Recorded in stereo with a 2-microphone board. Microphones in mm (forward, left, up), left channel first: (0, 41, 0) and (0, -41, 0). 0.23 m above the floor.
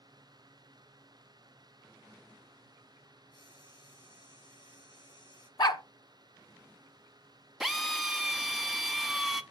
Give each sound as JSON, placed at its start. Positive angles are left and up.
{"t": 3.3, "sound": "frying", "side_deg": 70, "distance_m": 5.0}
{"t": 5.6, "sound": "a dog barking", "side_deg": 60, "distance_m": 0.8}
{"t": 7.6, "sound": "a drill", "side_deg": -5, "distance_m": 0.7}